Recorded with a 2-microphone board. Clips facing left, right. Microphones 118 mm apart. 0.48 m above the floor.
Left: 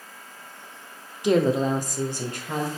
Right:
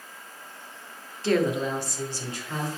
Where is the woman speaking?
15° left (ahead or behind), 0.7 m; by 2.7 s 60° left (ahead or behind), 1.7 m.